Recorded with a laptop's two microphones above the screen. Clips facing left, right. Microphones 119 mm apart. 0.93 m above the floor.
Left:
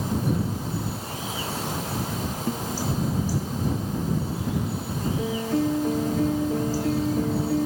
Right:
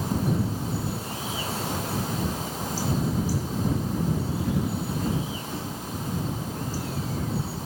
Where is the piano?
75° left (ahead or behind).